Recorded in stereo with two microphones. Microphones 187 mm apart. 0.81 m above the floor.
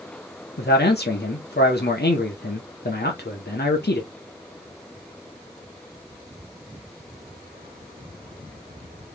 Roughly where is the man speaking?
Left.